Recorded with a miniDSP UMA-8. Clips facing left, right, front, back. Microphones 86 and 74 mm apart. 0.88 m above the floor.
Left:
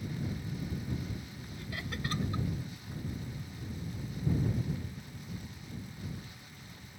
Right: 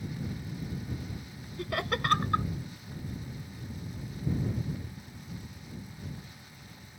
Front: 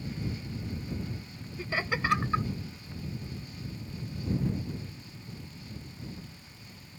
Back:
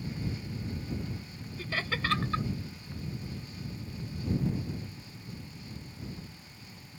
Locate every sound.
1.6 s laughter: 70° right